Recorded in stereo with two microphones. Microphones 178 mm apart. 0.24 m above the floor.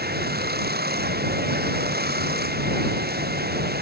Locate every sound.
0.0 s running water: 65° right (ahead or behind)